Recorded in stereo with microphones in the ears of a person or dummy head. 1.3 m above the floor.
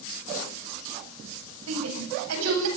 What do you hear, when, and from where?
1.7 s a shout: 85° right, 9 m; by 2.7 s 80° right, 9.5 m